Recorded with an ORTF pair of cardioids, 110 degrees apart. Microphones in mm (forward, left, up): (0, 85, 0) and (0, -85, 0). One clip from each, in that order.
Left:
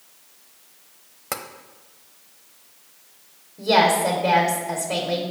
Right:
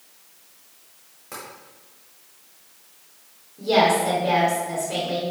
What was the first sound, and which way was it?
Tapping, 65° left.